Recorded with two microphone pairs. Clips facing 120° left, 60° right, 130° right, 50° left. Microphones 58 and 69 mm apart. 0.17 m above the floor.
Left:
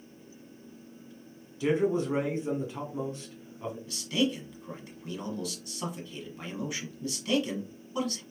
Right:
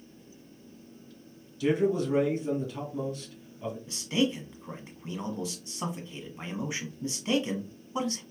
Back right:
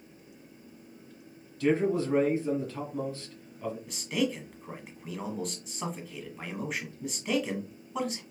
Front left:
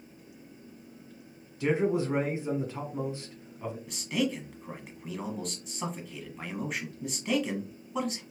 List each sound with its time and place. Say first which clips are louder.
1.6 s a man speaking: right 1 dB, back right 1 dB; 100° left, 1.6 m
3.9 s a man speaking: right 1 dB, even; 40° right, 1.1 m